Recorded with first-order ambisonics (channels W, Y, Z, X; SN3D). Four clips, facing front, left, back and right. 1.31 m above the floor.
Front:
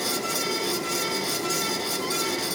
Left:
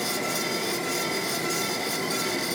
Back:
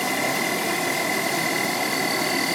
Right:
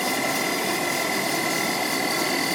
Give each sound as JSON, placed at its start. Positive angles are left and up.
{"t": 0.0, "sound": "an insect", "azimuth_deg": -145, "distance_m": 8.0}